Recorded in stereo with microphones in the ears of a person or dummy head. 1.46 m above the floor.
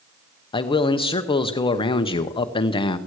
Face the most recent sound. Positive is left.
turn(degrees=25)  # may be behind; listen again after turning